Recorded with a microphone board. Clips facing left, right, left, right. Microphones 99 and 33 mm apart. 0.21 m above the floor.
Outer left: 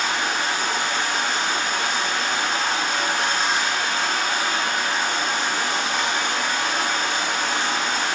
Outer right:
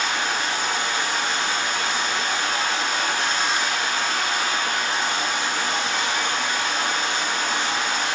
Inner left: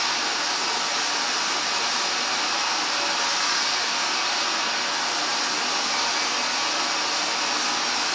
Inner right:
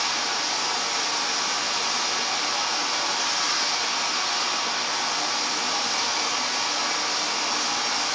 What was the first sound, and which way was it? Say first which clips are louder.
Running water: outer left 1 dB, inner left 1 dB; 55° left (ahead or behind).